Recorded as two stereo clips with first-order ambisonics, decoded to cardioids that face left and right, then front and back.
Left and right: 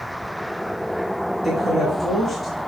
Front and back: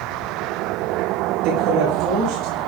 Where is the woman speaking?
170° left, 8 m.